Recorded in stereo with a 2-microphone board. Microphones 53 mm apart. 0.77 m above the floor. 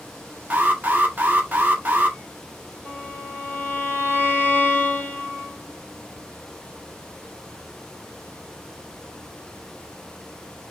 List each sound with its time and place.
0.5 s an alarm: 35° right (ahead or behind), 1.6 m
2.9 s a violin: 40° left (ahead or behind), 2.5 m